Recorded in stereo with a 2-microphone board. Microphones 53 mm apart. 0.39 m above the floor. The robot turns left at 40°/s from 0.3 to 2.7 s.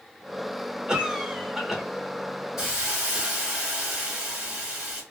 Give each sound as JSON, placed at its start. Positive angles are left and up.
{"t": 0.9, "sound": "a cough", "side_deg": -15, "distance_m": 0.9}
{"t": 2.6, "sound": "a hiss", "side_deg": -20, "distance_m": 1.3}